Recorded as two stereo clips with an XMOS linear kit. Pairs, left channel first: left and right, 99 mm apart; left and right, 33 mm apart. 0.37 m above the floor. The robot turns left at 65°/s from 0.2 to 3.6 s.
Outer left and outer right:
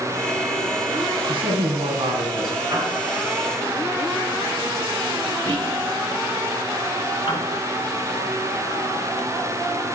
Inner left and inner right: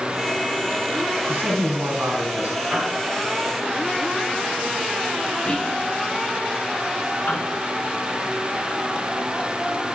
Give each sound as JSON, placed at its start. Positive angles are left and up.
{"t": 1.3, "sound": "a man speaking", "azimuth_deg": -60, "distance_m": 3.5}
{"t": 2.7, "sound": "a piano", "side_deg": -40, "distance_m": 5.5}
{"t": 5.5, "sound": "whispering", "side_deg": 20, "distance_m": 5.0}
{"t": 7.3, "sound": "a piano", "side_deg": 60, "distance_m": 5.0}